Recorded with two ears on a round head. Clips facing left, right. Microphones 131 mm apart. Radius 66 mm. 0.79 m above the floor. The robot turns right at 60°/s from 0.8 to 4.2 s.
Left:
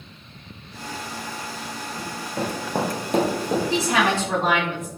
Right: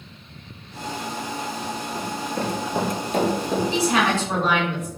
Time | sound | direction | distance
1.9 | running footsteps | 20° right (ahead or behind) | 0.8 m
3.7 | a woman speaking | 95° left | 1.9 m